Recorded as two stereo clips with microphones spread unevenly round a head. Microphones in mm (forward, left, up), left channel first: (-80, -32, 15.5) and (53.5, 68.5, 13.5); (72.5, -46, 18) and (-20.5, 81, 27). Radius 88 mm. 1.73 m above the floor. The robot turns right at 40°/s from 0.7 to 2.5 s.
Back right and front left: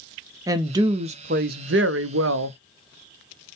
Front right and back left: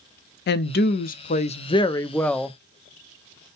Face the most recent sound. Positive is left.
turn(degrees=35)